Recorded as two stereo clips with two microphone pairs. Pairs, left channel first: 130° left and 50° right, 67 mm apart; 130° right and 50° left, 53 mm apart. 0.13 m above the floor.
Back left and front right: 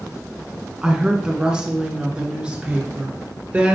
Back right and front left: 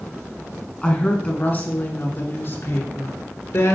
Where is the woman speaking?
105° right, 1.4 m; by 3.8 s 120° right, 2.5 m.